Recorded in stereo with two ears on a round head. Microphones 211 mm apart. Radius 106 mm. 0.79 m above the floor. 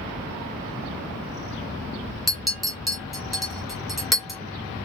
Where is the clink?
Centre (ahead or behind), 0.9 m.